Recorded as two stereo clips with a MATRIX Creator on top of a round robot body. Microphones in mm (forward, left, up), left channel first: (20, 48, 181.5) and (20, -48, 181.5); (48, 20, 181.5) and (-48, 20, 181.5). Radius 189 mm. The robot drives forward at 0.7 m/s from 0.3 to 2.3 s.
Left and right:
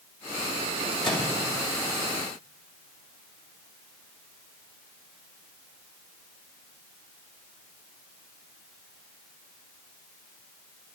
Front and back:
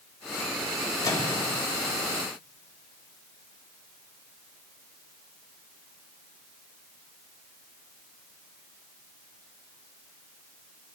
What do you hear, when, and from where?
1.0 s a microwave: 50° left, 2.5 m; by 1.4 s 55° left, 2.5 m